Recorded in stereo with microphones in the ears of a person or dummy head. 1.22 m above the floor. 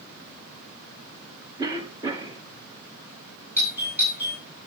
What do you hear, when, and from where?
1.6 s a cough: 20° right (ahead or behind), 2 m
3.6 s a doorbell: 10° right (ahead or behind), 9.5 m